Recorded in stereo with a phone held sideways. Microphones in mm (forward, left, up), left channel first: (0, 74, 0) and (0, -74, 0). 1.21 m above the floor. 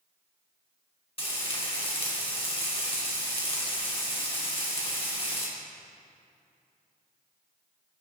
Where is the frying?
40° left (ahead or behind), 2.5 m.